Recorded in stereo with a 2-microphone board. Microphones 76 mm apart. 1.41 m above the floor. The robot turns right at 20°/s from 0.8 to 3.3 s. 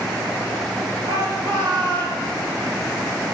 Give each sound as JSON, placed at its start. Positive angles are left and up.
{"t": 1.1, "sound": "a shout", "side_deg": -65, "distance_m": 7.0}